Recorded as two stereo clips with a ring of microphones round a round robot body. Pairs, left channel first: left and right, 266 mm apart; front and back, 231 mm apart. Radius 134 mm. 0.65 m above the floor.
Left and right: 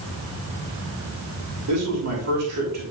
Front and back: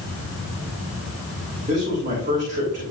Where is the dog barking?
I don't hear a dog barking.